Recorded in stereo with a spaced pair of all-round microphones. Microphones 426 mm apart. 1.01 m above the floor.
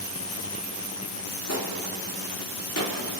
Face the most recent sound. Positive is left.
turn(degrees=35)  # may be behind; listen again after turning